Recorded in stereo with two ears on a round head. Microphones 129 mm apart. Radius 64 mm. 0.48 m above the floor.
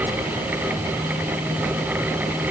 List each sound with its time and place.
Only background noise.